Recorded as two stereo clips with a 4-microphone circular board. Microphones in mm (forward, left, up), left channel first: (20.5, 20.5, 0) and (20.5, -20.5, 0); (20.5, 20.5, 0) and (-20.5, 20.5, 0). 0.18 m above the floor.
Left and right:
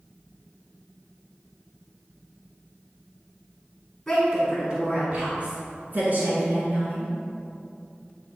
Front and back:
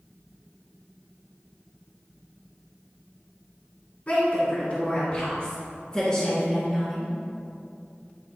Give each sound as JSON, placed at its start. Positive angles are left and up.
{"t": 4.1, "sound": "a woman speaking", "azimuth_deg": 0, "distance_m": 1.4}